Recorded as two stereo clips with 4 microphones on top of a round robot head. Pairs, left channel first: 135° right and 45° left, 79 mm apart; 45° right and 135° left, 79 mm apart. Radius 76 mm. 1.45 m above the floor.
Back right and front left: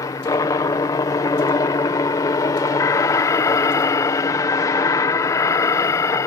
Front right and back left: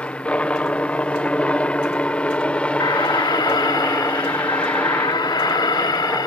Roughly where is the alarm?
Right.